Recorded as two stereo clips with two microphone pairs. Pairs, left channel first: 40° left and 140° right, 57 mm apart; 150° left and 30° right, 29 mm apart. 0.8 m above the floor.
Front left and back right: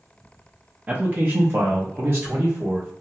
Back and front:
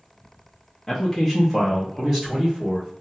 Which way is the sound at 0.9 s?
130° right.